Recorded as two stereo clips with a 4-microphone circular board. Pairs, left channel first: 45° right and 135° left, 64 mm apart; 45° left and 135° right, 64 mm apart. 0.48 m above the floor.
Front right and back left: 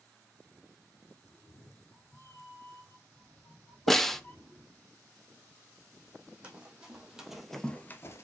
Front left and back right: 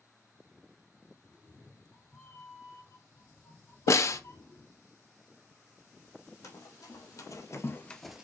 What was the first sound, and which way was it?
A cat meowing, 15° right.